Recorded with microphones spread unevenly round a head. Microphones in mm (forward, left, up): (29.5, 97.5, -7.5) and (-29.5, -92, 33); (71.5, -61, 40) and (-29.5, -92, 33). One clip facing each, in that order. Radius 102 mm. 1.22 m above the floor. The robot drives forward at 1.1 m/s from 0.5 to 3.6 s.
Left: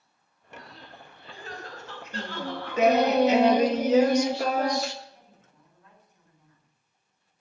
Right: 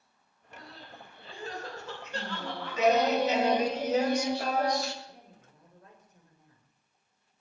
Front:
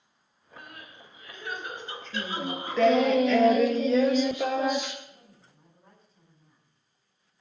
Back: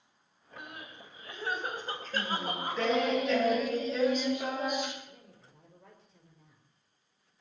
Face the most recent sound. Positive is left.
turn(degrees=-160)